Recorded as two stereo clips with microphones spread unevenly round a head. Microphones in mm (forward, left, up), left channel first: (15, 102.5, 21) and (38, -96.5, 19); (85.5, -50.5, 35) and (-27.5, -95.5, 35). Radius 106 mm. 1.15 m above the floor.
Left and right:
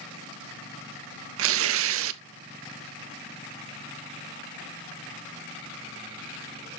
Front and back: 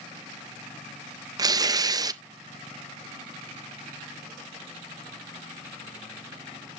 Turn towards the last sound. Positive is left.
turn(degrees=-100)